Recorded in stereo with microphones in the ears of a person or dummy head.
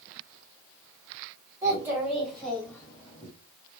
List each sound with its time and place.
1.6 s a child speaking: 15° right (ahead or behind), 2 m; by 3.3 s 25° left (ahead or behind), 1.9 m